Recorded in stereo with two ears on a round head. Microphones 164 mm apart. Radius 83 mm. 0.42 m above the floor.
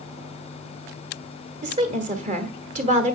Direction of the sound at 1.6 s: 40° right (ahead or behind).